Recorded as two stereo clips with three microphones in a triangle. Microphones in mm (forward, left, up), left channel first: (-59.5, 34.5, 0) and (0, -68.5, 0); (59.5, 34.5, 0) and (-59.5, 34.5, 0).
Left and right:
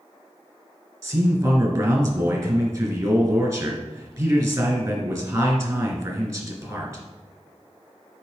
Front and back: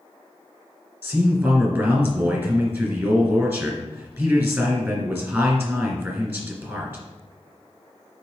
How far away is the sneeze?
No sneeze in this recording.